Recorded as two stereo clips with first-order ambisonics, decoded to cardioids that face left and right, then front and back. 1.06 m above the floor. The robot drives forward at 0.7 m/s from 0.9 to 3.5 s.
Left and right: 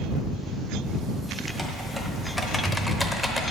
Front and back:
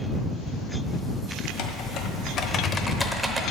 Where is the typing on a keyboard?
5° left, 1.4 m; by 3.4 s 155° left, 0.8 m.